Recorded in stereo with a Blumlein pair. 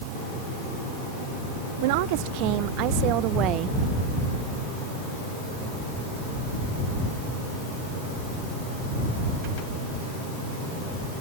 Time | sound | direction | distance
1.8 | a woman speaking | 50° right | ?